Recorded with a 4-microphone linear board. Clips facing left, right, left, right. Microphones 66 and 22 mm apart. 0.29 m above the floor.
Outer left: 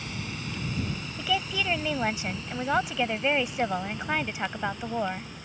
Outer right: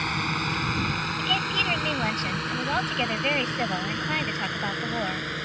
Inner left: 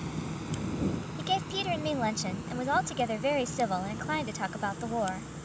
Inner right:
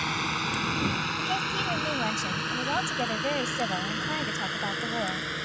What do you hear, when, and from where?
0.0 s a drone: 60° right (ahead or behind); by 5.5 s 70° right (ahead or behind)
1.2 s a woman speaking: 10° left (ahead or behind)